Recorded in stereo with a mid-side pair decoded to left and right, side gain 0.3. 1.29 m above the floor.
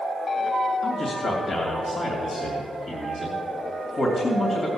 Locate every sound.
0.8 s a man speaking: 65° left, 2.5 m